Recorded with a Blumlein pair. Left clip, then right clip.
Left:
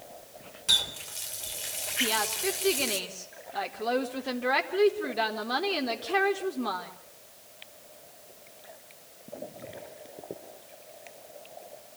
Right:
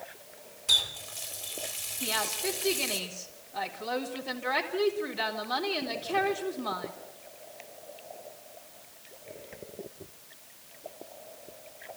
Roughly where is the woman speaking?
Ahead left.